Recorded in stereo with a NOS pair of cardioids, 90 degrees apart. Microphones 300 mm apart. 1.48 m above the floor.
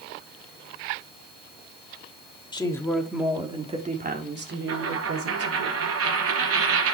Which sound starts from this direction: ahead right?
A dropped coin, at 4.7 s.